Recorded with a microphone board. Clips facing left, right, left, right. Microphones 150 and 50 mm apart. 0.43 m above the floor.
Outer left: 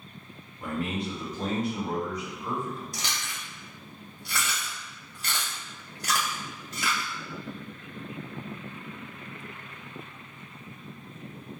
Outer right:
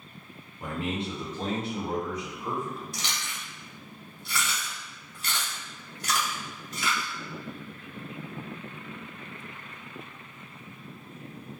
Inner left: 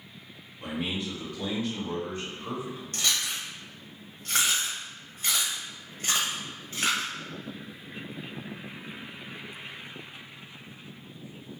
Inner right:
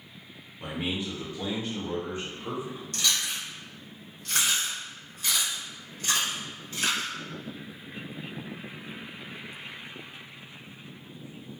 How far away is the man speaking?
About 1.0 m.